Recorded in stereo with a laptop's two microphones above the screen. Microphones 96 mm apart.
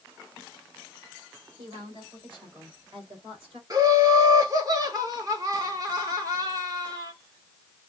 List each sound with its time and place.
1.6 s a woman speaking: 50° right (ahead or behind), 3.5 m; by 3.6 s 70° right (ahead or behind), 4 m
3.7 s laughter: 40° right (ahead or behind), 1.2 m